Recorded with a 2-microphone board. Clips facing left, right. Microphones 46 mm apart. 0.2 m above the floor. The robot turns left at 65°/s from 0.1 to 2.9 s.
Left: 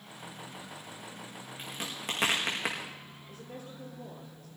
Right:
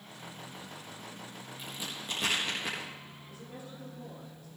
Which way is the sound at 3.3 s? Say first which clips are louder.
Left 2 dB; 45° left (ahead or behind).